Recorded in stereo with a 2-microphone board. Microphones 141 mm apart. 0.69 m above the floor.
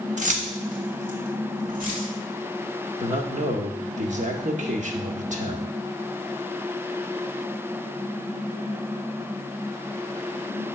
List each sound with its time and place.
0.2 s keys jangling: 60° right (ahead or behind), 0.8 m; by 2.1 s 80° right, 3 m
3.0 s a man speaking: 60° right (ahead or behind), 1.1 m